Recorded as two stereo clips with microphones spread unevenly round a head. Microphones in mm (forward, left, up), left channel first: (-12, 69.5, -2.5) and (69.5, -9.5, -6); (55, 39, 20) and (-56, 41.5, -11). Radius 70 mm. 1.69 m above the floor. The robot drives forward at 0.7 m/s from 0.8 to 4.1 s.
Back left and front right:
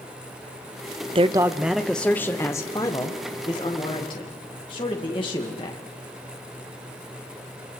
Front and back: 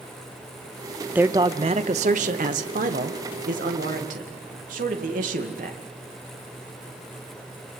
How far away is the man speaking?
About 0.6 m.